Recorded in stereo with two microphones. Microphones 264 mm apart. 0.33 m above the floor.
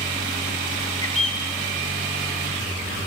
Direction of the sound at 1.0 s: 65° left (ahead or behind).